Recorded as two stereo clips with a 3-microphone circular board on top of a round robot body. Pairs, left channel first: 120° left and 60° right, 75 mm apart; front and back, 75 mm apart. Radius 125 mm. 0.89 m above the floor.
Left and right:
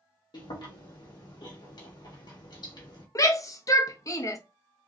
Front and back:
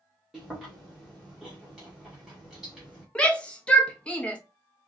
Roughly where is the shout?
Left.